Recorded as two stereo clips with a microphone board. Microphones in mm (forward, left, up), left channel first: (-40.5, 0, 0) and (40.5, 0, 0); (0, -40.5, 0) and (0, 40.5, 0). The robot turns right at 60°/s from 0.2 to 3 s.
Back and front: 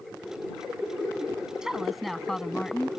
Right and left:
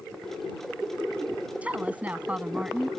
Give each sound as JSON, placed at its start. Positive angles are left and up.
{"t": 1.6, "sound": "a woman speaking", "azimuth_deg": 65}